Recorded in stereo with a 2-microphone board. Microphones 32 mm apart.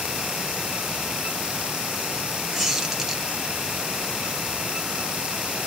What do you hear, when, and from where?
2.5 s a squeak: 10° right (ahead or behind), 1.2 m